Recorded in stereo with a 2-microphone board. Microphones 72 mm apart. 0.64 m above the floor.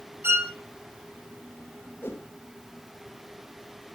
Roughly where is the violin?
Right.